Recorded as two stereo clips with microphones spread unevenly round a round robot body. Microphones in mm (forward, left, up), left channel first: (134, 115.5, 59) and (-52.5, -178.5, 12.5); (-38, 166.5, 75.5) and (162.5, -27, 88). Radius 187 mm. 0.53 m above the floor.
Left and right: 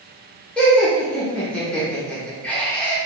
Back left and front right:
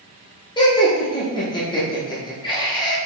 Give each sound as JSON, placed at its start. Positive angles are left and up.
{"t": 0.6, "sound": "laughter", "azimuth_deg": 160, "distance_m": 0.8}